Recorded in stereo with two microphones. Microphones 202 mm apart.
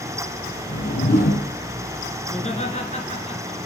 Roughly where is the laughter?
Left.